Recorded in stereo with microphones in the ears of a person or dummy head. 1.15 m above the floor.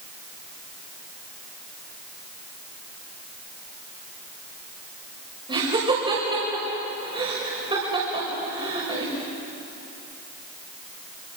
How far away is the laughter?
About 5.5 m.